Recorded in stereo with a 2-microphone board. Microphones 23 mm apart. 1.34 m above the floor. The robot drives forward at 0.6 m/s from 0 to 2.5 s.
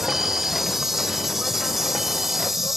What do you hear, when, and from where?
0.0 s an insect: 20° right (ahead or behind); by 2.8 s 15° right (ahead or behind)